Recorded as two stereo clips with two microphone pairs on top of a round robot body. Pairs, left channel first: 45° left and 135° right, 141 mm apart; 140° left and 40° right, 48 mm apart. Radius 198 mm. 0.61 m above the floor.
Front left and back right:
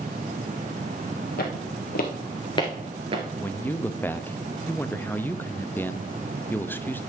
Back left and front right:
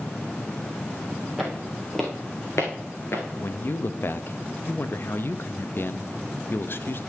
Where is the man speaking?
120° left, 0.9 m.